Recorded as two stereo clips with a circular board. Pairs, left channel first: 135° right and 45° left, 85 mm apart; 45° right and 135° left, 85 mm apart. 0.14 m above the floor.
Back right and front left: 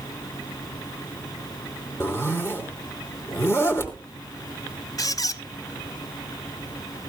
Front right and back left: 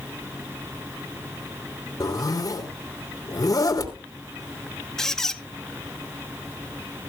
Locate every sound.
2.0 s a zipper: 85° right, 3 m
5.0 s a squeak: 125° right, 0.6 m